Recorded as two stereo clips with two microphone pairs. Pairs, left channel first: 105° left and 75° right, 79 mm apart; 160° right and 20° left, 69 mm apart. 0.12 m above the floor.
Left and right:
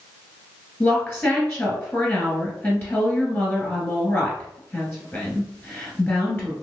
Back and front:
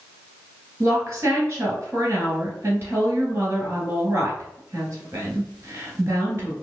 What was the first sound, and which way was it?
A woman speaking, 55° left.